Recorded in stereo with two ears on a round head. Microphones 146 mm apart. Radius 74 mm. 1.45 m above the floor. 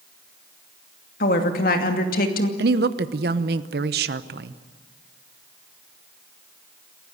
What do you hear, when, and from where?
1.2 s a woman speaking: 55° left (ahead or behind), 2.5 m
2.6 s a woman speaking: 65° right (ahead or behind), 0.8 m